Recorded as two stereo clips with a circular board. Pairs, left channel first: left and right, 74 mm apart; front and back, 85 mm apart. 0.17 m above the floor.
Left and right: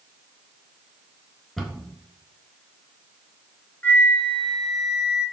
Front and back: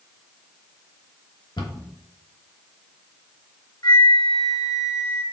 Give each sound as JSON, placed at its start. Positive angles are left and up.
{"t": 1.6, "sound": "a cupboard door", "azimuth_deg": 5, "distance_m": 1.1}
{"t": 3.8, "sound": "a flute", "azimuth_deg": 25, "distance_m": 0.7}